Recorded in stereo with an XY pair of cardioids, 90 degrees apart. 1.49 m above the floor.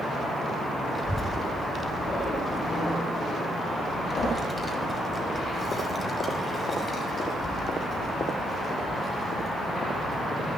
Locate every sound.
0.9 s a child speaking: 5° right, 6 m; by 10.6 s 45° left, 6.5 m